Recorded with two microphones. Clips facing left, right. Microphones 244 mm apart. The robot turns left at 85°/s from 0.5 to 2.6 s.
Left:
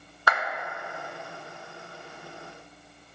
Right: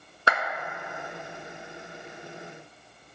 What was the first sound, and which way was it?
A clap, 30° right (ahead or behind).